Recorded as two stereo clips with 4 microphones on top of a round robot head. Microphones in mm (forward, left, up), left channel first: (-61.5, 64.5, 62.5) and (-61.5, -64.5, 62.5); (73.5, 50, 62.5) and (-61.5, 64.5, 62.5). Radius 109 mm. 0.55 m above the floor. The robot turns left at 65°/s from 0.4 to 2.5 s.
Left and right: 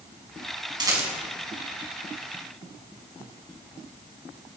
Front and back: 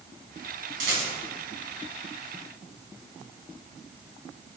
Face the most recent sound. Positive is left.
turn(degrees=105)